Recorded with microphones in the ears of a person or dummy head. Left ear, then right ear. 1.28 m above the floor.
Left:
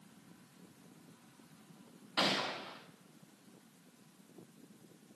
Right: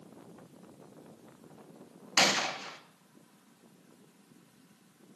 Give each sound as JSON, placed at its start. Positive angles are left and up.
{"t": 2.2, "sound": "a gunshot", "side_deg": -65, "distance_m": 1.4}